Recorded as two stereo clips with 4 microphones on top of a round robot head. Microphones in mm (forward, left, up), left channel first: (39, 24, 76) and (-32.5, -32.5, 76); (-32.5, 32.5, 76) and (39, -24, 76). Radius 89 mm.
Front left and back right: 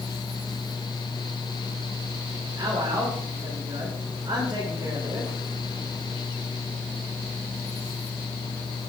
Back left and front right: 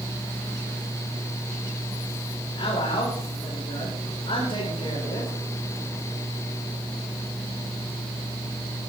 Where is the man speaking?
175° left, 7 m.